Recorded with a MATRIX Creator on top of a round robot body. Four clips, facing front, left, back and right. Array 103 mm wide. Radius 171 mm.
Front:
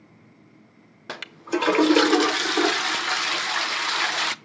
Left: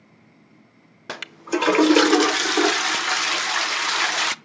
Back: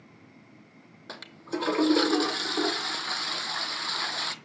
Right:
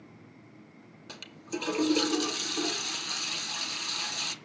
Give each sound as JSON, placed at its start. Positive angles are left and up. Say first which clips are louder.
{"t": 1.1, "sound": "a toilet flushing", "louder": "left 12 dB, front 7 dB", "azimuth_deg": 60, "distance_m": 0.6}